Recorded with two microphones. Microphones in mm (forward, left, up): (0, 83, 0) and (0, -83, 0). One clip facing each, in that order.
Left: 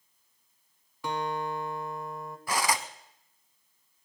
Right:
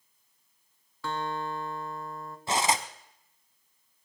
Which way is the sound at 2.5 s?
25° right (ahead or behind).